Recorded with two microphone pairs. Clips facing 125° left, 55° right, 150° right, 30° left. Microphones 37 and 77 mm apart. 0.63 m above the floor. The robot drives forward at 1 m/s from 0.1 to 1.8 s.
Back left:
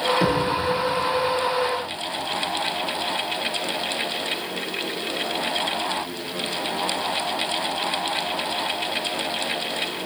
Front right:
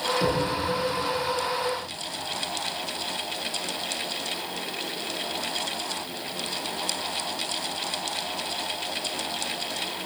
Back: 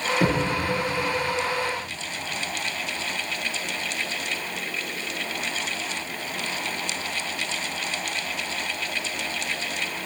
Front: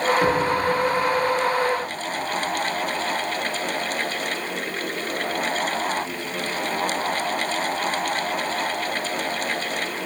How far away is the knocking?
About 7.5 m.